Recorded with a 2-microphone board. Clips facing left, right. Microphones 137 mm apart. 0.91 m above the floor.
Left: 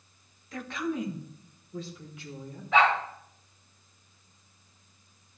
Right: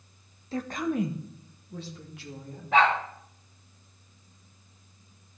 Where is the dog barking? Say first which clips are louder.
Right 1 dB; 55° right (ahead or behind), 5.5 m.